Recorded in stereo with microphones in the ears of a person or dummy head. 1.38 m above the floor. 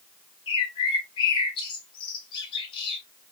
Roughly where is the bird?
Left.